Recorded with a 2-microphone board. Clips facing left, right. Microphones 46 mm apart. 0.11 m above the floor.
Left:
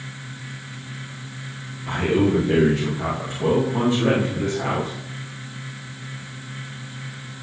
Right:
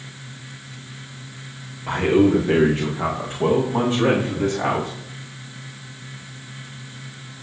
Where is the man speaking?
30° right (ahead or behind), 9.5 m; by 4.9 s 40° right (ahead or behind), 9 m.